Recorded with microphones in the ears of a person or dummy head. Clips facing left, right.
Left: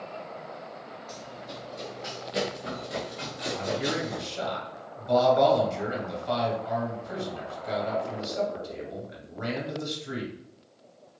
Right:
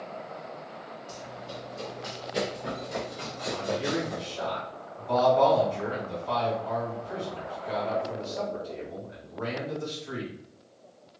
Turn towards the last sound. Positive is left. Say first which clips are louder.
# even
turn(degrees=35)  # may be behind; listen again after turning